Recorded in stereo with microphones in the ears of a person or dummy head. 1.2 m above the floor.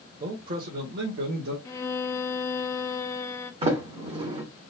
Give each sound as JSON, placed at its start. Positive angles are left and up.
{"t": 0.2, "sound": "a man speaking", "side_deg": -45, "distance_m": 1.0}
{"t": 1.6, "sound": "a violin", "side_deg": 20, "distance_m": 0.6}
{"t": 3.6, "sound": "a sliding door", "side_deg": -30, "distance_m": 0.9}